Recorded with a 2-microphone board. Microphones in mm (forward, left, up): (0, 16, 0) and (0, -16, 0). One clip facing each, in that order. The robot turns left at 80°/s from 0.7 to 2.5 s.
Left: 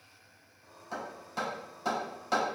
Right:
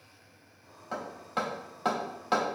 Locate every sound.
0.9 s hammering: 40° right (ahead or behind), 1.4 m; by 2.6 s 5° right (ahead or behind), 1.4 m